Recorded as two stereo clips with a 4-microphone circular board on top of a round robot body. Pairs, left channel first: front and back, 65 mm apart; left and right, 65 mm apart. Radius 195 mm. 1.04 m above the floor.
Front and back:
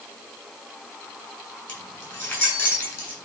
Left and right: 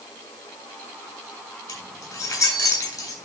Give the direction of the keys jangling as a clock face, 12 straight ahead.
10 o'clock.